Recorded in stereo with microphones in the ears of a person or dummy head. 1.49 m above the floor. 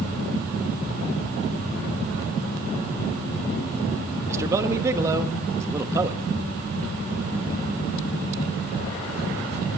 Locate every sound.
4.3 s a man speaking: 20° right (ahead or behind), 1.0 m